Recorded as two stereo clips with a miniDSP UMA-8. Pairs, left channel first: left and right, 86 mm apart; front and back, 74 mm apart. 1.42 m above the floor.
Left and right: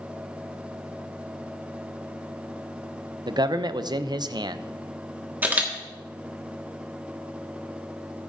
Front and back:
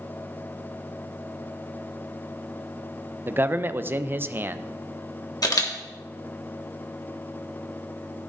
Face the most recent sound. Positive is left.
turn(degrees=-25)